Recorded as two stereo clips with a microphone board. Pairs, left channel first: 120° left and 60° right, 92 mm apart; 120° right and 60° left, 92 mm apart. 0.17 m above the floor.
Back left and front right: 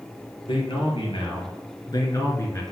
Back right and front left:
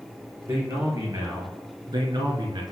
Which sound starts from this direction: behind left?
A man speaking, at 0.5 s.